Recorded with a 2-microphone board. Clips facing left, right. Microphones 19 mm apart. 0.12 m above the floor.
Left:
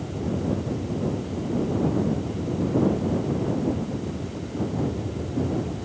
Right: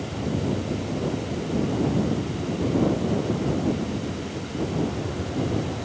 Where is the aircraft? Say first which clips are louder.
Right 1 dB; 45° right (ahead or behind); by 5.8 s 70° right (ahead or behind).